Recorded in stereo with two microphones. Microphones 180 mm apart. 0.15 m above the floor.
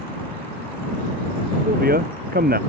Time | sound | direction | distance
1.6 | a man speaking | 65° right (ahead or behind) | ?